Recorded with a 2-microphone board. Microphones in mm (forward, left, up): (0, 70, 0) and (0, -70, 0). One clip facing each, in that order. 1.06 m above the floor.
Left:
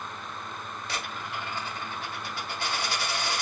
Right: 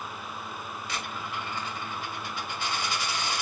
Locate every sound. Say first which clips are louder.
0.9 s a dropped coin: even; 40° left (ahead or behind), 1.9 m